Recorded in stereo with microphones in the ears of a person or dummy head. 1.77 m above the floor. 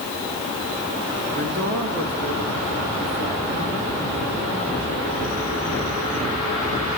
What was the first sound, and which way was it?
A man speaking, 65° right (ahead or behind).